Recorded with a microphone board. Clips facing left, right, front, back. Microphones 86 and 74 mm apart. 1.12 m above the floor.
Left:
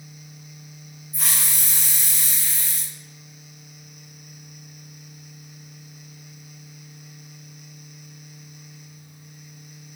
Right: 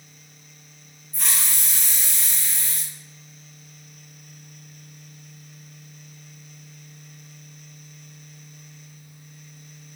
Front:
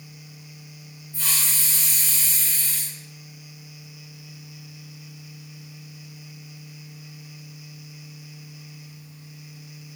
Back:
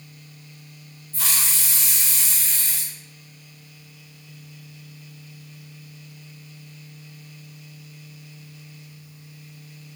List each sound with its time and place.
1.1 s a hiss: 175° left, 0.6 m